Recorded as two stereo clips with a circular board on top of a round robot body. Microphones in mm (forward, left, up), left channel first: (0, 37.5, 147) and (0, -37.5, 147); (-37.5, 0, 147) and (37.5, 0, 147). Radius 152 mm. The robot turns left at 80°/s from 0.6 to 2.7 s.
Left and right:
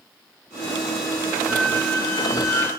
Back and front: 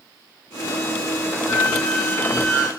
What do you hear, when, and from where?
1.5 s a squeak: 125° left, 2.0 m; by 2.7 s 25° left, 2.0 m